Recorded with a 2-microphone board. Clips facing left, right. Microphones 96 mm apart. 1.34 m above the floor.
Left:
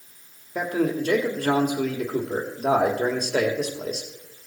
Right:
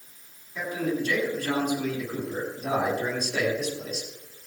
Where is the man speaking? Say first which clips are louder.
Left 4 dB; 60° left (ahead or behind), 2.5 m.